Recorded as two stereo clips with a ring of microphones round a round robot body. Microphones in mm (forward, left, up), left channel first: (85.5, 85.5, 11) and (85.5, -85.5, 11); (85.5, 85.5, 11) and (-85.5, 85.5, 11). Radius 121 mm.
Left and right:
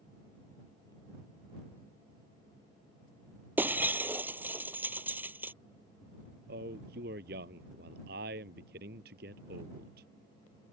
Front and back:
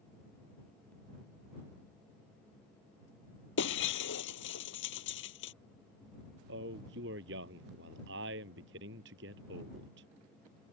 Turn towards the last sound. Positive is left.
turn(degrees=-140)